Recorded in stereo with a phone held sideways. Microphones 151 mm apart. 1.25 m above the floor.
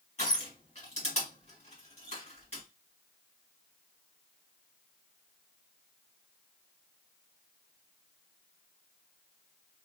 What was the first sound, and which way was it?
Crushing, 45° left (ahead or behind).